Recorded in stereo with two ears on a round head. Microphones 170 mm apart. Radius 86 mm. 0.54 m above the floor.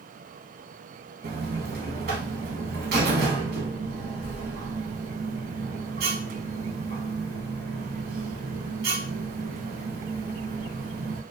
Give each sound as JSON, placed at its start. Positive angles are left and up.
{"t": 1.2, "sound": "a buzzer", "side_deg": -50, "distance_m": 0.6}